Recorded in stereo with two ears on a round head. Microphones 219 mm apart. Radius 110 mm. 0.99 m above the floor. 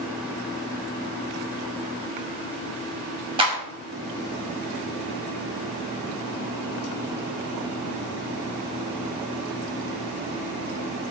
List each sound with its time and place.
3.4 s a clap: 20° right (ahead or behind), 5 m